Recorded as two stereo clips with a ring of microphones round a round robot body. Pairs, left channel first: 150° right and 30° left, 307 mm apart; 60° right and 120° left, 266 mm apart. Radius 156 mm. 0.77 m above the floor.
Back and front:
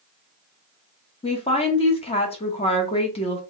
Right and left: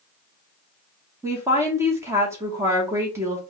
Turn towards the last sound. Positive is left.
turn(degrees=180)